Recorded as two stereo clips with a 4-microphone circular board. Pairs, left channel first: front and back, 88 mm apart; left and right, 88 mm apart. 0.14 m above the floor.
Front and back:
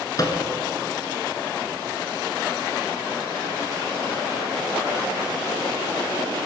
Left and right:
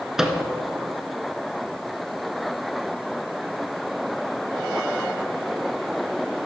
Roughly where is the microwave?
Ahead.